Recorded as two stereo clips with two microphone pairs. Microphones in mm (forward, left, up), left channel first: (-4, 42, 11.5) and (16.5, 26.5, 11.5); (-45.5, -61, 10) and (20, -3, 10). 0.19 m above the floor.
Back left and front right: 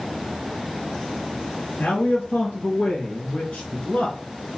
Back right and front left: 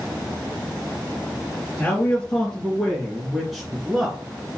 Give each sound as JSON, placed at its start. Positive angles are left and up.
{"t": 1.8, "sound": "a man speaking", "azimuth_deg": 160, "distance_m": 3.0}